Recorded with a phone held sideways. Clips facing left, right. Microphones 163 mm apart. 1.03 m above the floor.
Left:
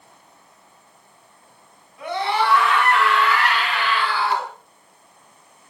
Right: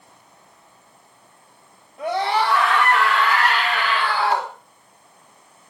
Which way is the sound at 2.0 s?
35° right (ahead or behind).